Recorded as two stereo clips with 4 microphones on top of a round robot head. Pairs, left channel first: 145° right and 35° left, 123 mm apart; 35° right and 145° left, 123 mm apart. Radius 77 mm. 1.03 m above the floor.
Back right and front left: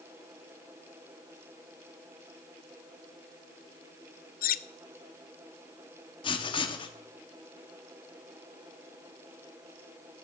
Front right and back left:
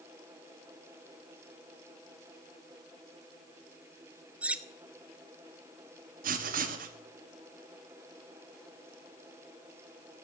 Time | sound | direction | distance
4.4 | cutlery clinking | 135° right | 0.5 m
6.2 | writing | 160° left | 1.3 m